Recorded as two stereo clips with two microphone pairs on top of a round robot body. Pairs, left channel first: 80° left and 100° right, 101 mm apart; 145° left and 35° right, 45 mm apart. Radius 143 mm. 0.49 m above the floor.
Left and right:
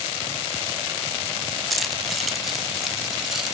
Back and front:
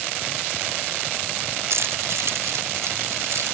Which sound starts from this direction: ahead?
Keys jangling, at 1.7 s.